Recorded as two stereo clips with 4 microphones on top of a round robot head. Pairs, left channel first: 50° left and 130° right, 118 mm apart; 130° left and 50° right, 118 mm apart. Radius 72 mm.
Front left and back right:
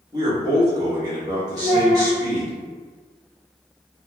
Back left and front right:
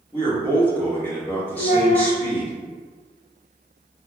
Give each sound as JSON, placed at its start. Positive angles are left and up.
{"t": 0.1, "sound": "a man speaking", "azimuth_deg": -165, "distance_m": 1.3}
{"t": 1.6, "sound": "a child speaking", "azimuth_deg": 140, "distance_m": 0.9}